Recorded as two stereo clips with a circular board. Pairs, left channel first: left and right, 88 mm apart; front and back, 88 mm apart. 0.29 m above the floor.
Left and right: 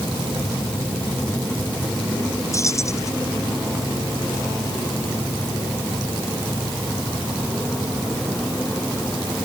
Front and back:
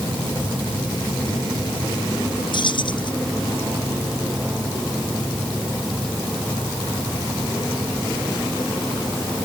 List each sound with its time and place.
2.5 s keys jangling: 35° left